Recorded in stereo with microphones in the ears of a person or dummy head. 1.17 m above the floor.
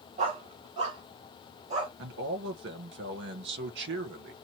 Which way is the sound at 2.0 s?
65° right (ahead or behind).